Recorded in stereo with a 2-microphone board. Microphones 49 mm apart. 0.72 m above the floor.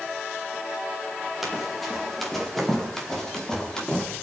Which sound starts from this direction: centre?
Running footsteps, at 1.4 s.